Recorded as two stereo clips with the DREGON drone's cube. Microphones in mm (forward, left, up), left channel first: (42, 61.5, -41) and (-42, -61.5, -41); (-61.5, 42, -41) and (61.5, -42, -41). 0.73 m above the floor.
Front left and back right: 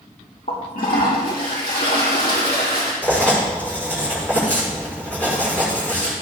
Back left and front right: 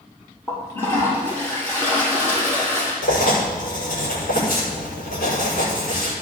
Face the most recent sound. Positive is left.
turn(degrees=135)